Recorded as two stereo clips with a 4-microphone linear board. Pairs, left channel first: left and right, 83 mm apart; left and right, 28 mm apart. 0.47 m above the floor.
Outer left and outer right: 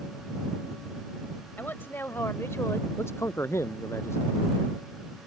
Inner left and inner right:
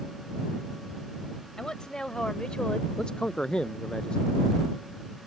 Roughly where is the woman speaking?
Left.